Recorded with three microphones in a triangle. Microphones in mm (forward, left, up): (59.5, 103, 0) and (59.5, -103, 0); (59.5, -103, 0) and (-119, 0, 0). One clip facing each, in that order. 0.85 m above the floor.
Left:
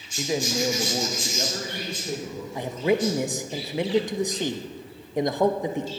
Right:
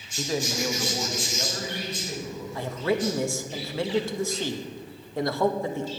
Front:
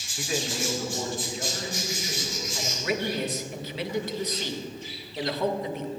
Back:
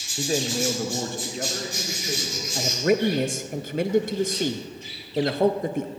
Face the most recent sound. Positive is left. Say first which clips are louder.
# left 3 dB, back 9 dB
turn(degrees=155)